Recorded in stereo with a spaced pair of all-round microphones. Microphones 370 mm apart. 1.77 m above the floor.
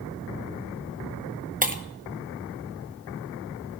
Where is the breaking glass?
20° right (ahead or behind), 0.9 m.